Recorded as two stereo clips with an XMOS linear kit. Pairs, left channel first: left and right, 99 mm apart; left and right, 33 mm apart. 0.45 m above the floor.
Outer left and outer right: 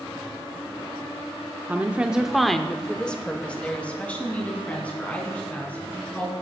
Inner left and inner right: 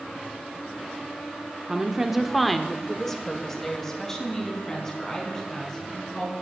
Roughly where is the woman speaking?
Centre.